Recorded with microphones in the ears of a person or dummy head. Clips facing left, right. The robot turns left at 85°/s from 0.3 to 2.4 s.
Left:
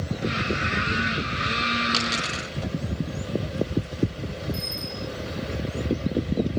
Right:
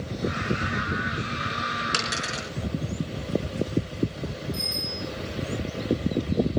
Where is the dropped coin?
30° right (ahead or behind), 4.5 m; by 2.4 s 10° left (ahead or behind), 4.5 m.